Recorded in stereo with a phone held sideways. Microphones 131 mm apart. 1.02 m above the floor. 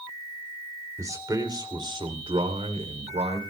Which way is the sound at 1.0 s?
25° right (ahead or behind).